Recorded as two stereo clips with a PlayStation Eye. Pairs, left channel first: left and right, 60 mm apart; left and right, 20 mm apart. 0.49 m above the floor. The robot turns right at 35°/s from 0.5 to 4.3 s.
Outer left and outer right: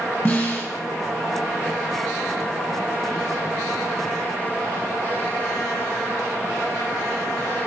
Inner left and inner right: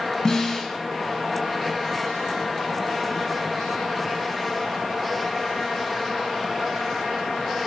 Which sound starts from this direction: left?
A snare drum, at 0.2 s.